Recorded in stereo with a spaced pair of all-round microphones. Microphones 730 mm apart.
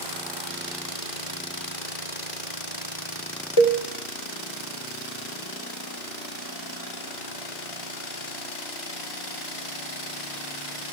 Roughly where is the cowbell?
Left.